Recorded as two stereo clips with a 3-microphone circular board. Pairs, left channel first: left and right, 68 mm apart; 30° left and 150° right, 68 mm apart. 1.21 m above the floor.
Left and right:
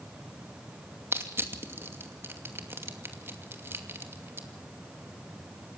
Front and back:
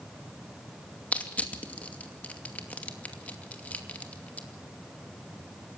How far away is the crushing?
About 2.5 m.